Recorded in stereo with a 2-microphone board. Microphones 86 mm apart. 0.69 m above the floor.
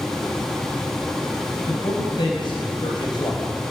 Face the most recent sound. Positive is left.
turn(degrees=55)  # may be behind; listen again after turning